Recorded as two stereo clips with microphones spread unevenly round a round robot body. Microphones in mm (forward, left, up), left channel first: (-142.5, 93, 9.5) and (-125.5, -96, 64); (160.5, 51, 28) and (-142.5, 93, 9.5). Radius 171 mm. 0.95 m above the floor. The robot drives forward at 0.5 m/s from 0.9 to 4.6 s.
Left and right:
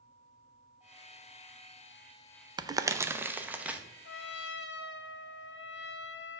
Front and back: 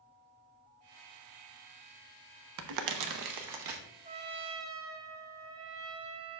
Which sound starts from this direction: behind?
Crumpling, at 2.6 s.